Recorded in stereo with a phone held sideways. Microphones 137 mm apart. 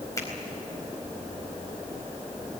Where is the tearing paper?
I don't hear tearing paper.